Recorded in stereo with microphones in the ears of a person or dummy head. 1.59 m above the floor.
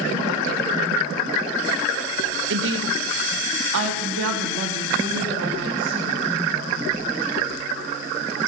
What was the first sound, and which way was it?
A woman speaking, 65° right (ahead or behind).